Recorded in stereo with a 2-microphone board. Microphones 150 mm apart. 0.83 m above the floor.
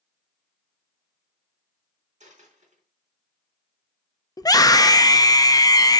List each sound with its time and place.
2.2 s a dropped coin: 50° right (ahead or behind), 3.5 m
4.4 s a scream: 25° left (ahead or behind), 0.7 m